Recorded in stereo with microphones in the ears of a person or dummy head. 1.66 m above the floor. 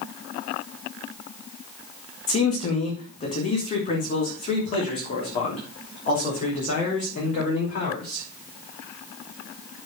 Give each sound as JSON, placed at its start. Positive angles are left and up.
{"t": 2.3, "sound": "a man speaking", "side_deg": 30, "distance_m": 1.9}